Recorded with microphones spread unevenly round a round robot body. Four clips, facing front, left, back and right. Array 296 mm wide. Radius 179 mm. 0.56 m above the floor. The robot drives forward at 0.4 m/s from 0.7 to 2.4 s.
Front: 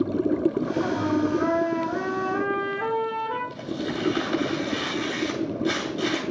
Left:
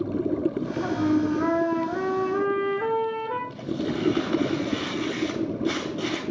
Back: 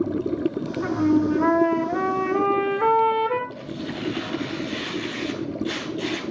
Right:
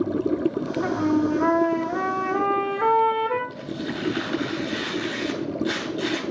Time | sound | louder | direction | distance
0.8 | a trumpet | right 1 dB, back 8 dB | 125° left | 2 m
3.5 | tearing paper | left 2 dB, front 2 dB | 55° left | 9.5 m